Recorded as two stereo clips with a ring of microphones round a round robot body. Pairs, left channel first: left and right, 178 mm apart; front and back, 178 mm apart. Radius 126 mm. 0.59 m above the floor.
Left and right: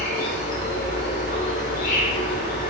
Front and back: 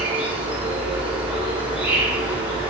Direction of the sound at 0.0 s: 100° left.